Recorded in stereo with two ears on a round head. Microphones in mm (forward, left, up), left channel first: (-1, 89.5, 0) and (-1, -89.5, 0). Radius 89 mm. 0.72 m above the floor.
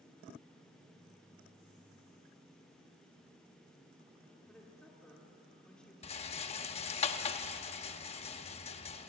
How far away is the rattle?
About 1.0 m.